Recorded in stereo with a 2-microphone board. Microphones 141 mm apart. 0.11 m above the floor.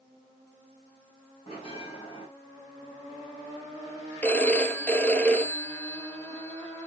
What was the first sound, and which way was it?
A bell, 40° left (ahead or behind).